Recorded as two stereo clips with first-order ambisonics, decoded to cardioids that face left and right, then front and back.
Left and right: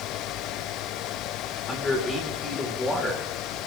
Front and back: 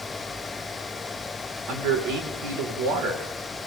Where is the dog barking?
I don't hear a dog barking.